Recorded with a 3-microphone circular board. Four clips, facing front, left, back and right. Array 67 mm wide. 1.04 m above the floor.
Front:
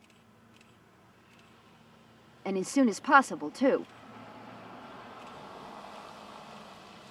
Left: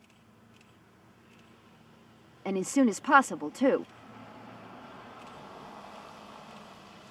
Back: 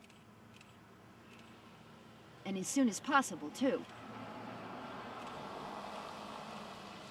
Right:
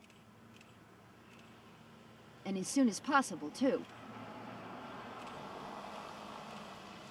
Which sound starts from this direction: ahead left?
A woman speaking, at 2.5 s.